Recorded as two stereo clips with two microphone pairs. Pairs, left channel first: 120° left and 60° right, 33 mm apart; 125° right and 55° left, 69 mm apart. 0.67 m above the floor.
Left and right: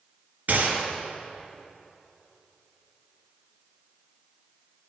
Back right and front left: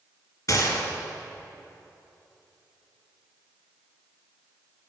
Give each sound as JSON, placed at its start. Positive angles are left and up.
{"t": 0.5, "sound": "a gunshot", "azimuth_deg": -95, "distance_m": 1.8}